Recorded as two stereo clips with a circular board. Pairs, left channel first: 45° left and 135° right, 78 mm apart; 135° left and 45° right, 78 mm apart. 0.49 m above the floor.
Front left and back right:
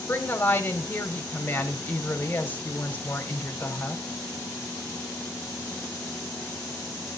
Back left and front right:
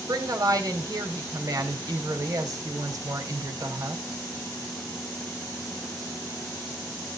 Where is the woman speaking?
15° right, 3 m.